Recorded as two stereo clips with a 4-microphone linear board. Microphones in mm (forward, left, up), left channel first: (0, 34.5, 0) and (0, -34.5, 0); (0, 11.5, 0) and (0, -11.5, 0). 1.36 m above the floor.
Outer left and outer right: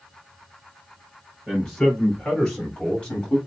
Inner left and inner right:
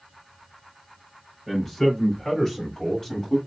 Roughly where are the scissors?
No scissors in this recording.